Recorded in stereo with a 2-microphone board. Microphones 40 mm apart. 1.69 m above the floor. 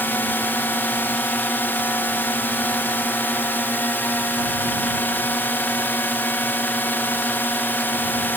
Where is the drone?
65° left (ahead or behind).